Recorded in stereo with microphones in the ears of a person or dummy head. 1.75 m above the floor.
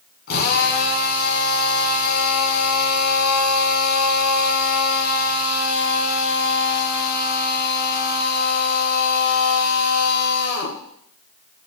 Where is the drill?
55° left (ahead or behind), 4.5 m.